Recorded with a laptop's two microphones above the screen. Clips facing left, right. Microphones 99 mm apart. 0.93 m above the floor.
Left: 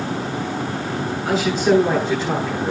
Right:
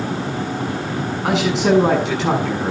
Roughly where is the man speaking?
Right.